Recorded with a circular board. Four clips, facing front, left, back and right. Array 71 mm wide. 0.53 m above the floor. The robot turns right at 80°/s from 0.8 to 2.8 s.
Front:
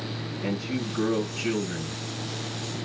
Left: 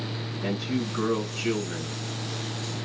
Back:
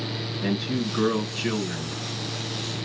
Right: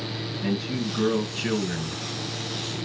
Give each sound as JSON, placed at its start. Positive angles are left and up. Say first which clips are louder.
{"t": 0.4, "sound": "a man speaking", "louder": "right 1 dB, back 3 dB", "azimuth_deg": 170, "distance_m": 4.0}